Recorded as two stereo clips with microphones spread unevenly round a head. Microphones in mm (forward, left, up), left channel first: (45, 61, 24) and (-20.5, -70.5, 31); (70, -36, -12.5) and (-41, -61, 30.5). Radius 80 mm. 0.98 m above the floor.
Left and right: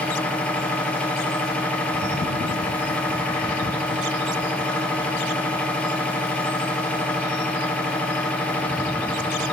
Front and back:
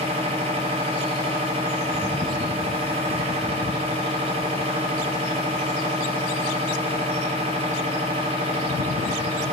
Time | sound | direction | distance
0.0 | a machine running | 140° left | 0.9 m